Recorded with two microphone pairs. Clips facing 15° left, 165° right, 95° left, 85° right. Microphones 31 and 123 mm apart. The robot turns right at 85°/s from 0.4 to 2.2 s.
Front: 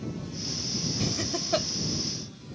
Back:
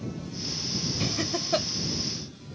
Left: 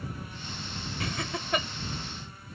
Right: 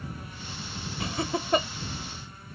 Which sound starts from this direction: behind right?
Laughter, at 1.0 s.